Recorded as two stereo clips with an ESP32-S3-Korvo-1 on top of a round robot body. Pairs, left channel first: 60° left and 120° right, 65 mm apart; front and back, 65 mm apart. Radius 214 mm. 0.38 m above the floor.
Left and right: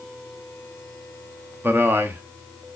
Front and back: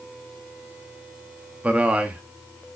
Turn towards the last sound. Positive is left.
turn(degrees=-125)